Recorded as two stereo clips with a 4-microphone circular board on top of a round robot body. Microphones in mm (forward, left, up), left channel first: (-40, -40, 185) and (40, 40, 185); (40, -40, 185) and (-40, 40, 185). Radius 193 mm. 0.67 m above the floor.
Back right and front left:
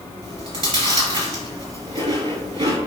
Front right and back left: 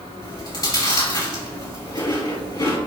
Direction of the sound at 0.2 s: 10° left.